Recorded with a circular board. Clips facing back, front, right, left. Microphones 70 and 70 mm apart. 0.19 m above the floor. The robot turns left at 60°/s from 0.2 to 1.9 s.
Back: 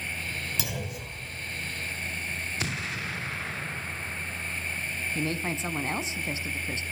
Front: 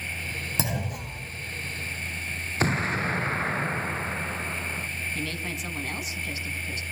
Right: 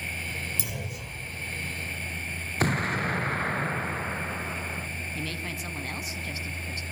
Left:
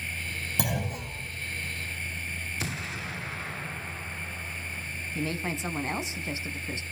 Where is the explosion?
50° right, 0.6 m.